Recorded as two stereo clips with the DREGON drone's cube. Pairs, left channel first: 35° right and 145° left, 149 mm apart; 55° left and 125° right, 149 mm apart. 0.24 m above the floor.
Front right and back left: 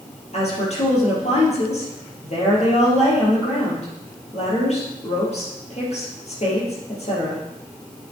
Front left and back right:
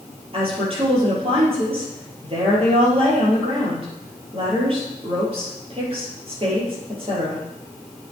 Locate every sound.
0.3 s a woman speaking: 75° right, 4 m